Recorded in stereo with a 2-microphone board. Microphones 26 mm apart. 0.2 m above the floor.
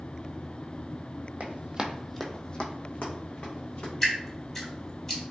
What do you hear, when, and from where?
1.4 s running footsteps: 55° right (ahead or behind), 0.7 m; by 3.9 s 65° left (ahead or behind), 1.7 m
4.0 s dripping: 15° left (ahead or behind), 1.0 m